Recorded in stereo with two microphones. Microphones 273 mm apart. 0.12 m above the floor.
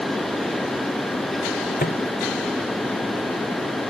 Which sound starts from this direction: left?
A microwave, at 1.8 s.